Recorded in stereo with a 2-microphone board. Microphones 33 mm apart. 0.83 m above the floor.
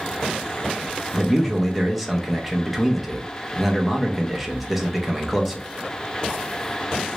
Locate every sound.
1.1 s a man speaking: 5° right (ahead or behind), 0.7 m